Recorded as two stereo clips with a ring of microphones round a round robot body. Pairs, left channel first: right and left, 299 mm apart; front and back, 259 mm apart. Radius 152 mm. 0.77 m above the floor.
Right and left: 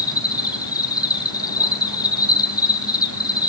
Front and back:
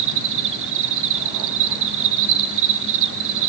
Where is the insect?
165° right, 1.3 m.